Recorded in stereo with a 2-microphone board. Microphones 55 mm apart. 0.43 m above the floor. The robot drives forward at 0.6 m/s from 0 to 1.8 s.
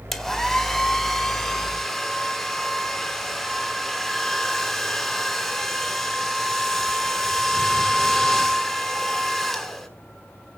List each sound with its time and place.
0.1 s a hair dryer: 5° left (ahead or behind), 1.3 m; by 9.9 s centre (ahead or behind), 2.5 m